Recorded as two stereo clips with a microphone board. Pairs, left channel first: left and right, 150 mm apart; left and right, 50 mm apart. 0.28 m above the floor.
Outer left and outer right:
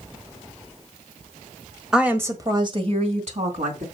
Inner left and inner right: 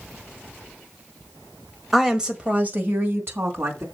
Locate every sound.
1.9 s a woman speaking: 5° right (ahead or behind), 1.5 m; by 3.8 s 60° right (ahead or behind), 3 m